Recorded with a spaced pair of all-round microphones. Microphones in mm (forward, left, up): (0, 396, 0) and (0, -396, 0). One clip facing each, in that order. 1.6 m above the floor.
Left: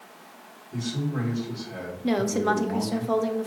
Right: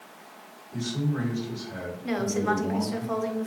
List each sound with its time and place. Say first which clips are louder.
0.7 s a man speaking: even; 55° left (ahead or behind), 4 m
2.0 s a woman speaking: left 3 dB; 65° left (ahead or behind), 0.9 m